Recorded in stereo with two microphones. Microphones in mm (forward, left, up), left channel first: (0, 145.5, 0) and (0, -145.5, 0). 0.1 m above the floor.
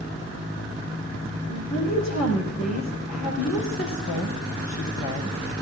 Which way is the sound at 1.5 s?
75° left (ahead or behind).